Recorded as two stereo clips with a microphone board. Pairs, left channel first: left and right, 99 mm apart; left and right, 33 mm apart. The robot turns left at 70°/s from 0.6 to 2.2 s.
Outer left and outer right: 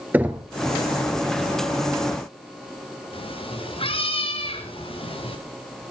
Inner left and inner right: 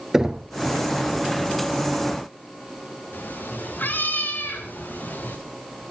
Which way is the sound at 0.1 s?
15° right (ahead or behind).